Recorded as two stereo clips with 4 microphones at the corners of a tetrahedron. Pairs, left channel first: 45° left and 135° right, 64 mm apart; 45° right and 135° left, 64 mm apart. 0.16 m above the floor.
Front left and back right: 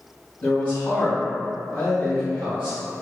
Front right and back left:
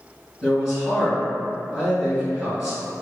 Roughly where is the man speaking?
Ahead left.